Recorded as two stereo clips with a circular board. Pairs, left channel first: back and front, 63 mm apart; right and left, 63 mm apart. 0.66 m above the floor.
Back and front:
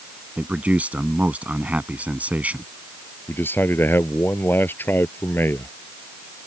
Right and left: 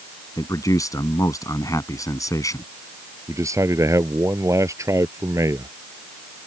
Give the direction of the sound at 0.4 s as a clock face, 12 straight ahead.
2 o'clock.